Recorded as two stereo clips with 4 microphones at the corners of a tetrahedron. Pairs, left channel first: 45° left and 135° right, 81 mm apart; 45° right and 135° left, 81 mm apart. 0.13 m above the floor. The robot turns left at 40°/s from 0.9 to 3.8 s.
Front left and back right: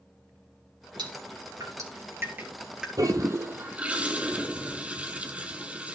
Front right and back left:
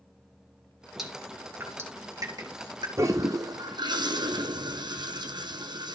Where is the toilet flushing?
175° right, 1.6 m; by 6.0 s 155° left, 1.6 m.